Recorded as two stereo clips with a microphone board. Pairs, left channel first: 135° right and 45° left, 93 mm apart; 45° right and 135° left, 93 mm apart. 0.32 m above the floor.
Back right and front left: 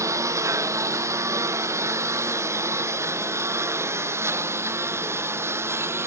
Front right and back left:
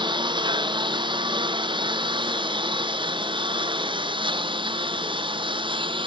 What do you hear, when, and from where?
0.0 s a lawn mower: 100° left; by 6.1 s 110° left